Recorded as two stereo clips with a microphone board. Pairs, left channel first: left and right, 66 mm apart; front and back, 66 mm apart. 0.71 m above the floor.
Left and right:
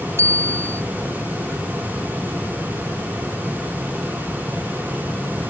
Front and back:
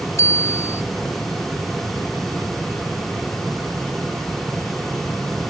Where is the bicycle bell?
45° right.